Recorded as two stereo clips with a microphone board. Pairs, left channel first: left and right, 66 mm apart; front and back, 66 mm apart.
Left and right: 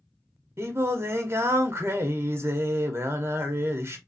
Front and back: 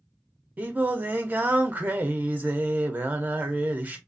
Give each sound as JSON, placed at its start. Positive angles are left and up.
{"t": 0.6, "sound": "singing", "azimuth_deg": -120, "distance_m": 0.6}